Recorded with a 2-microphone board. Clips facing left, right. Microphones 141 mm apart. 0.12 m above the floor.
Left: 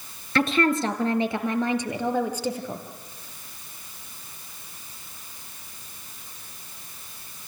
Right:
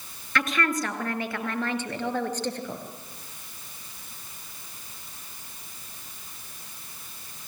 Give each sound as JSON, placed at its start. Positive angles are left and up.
{"t": 0.3, "sound": "a woman speaking", "side_deg": 30, "distance_m": 2.5}